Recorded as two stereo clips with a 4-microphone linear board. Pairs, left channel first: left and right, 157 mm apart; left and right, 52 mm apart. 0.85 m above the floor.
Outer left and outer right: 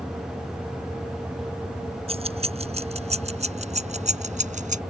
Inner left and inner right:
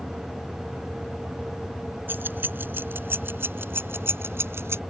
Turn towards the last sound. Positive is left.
turn(degrees=-50)  # may be behind; listen again after turning